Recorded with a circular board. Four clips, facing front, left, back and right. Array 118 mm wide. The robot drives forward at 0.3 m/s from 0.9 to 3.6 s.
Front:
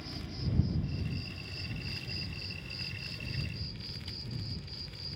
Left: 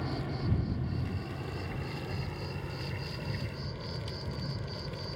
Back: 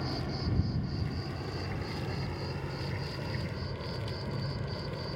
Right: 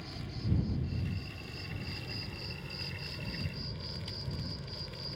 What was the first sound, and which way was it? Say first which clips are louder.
An insect: left 7 dB, back 6 dB; 140° left.